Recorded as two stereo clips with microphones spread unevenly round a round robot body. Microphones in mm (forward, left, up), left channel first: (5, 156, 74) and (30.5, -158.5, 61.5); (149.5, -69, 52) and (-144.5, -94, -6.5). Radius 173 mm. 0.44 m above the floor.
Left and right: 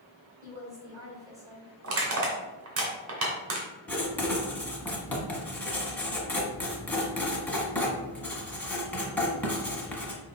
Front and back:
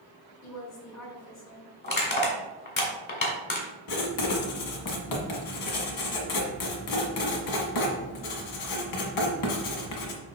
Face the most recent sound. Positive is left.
turn(degrees=10)